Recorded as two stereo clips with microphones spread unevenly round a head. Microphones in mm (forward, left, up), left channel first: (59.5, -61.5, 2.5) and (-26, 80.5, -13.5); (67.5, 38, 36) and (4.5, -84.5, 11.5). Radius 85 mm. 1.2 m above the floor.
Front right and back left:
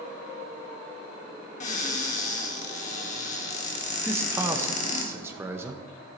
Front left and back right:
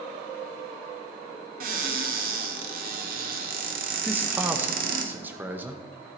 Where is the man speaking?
175° right, 0.8 m.